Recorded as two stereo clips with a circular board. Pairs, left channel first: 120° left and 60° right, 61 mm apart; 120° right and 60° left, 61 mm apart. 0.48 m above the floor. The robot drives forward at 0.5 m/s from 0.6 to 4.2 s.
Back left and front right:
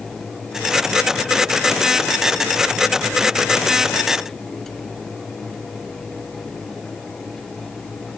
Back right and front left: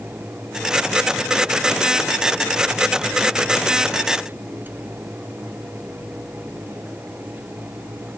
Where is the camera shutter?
I don't hear a camera shutter.